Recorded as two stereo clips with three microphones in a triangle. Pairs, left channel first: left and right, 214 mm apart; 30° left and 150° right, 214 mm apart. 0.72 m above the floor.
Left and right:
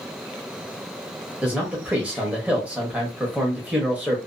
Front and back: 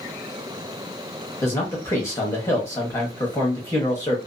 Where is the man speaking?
15° right, 0.9 m.